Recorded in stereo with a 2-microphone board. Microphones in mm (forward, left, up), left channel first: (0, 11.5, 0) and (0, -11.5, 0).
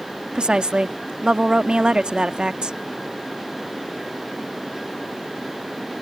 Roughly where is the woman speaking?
Right.